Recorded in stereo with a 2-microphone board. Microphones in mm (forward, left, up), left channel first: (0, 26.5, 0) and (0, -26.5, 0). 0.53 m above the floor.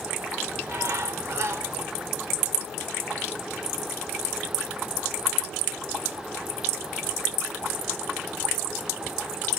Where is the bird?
55° right (ahead or behind), 1.9 m.